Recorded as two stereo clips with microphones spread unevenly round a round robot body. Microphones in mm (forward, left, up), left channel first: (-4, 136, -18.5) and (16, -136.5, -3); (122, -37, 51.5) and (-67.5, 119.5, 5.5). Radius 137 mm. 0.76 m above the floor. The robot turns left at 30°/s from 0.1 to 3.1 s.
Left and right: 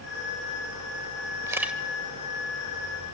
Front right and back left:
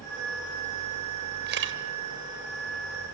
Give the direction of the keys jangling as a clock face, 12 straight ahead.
I don't hear keys jangling.